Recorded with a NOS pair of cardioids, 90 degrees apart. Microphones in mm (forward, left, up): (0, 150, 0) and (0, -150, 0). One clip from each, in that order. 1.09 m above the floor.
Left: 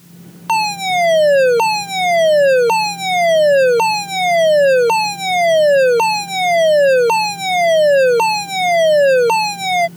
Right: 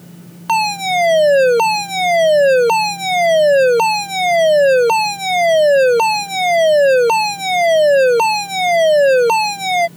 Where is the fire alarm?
5° right.